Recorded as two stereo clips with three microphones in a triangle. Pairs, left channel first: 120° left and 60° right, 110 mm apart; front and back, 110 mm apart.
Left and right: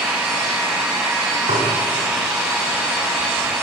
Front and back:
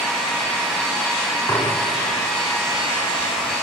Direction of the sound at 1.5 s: 60° right.